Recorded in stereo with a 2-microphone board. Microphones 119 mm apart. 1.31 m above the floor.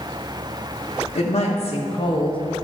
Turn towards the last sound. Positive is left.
turn(degrees=40)  # may be behind; listen again after turning